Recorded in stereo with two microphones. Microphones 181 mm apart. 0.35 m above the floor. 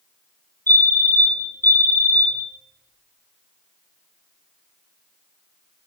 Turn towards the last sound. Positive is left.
turn(degrees=15)  # may be behind; listen again after turning